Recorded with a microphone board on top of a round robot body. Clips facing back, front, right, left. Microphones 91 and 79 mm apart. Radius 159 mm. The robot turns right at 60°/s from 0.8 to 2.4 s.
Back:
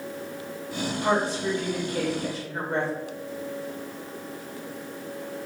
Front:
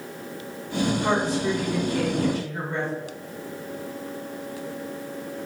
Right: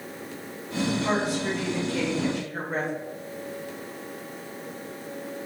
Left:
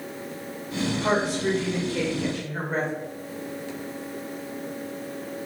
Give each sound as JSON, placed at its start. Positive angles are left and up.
{"t": 1.0, "sound": "a woman speaking", "azimuth_deg": 110, "distance_m": 1.6}